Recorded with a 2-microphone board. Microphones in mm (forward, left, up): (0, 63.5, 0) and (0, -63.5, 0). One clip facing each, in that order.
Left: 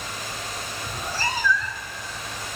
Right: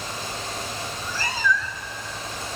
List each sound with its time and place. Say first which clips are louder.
0.9 s a cat meowing: left 2 dB; 65° left (ahead or behind), 0.6 m; by 2.0 s 25° right (ahead or behind), 0.9 m